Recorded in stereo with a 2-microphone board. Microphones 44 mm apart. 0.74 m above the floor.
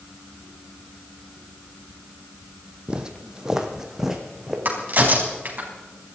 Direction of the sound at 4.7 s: 45° right (ahead or behind).